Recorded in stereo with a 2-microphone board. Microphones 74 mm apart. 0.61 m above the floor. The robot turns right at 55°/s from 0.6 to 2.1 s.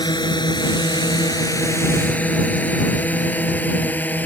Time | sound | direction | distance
0.0 | a drone | 80° left | ?